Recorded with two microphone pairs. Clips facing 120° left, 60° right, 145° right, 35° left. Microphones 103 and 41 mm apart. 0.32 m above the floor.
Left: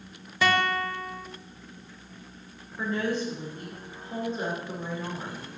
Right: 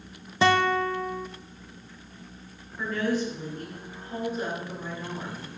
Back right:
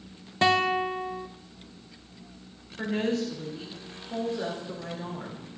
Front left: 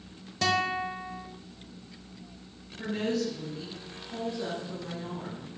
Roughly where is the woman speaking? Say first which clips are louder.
Right 1 dB, back right 2 dB; behind.